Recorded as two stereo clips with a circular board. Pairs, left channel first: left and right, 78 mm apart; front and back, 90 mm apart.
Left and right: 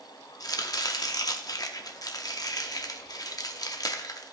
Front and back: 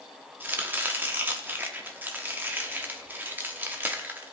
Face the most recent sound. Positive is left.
turn(degrees=115)